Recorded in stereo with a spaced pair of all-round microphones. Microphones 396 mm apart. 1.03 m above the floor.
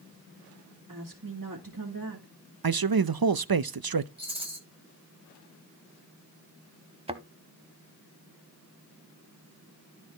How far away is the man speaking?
About 0.6 m.